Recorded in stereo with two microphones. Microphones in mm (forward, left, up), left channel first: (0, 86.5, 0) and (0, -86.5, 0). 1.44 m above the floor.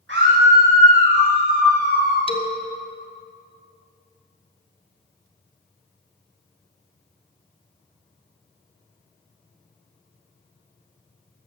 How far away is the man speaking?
About 1.4 m.